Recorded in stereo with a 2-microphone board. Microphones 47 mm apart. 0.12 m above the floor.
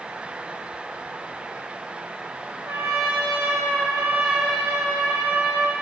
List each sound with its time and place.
2.6 s a trumpet: 75° right (ahead or behind), 6 m